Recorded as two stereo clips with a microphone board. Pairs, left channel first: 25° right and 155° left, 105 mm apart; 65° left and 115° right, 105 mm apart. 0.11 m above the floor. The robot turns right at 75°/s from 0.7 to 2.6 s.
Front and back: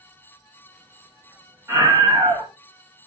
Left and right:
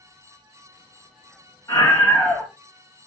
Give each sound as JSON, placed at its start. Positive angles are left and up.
{"t": 1.7, "sound": "a scream", "azimuth_deg": 100, "distance_m": 1.8}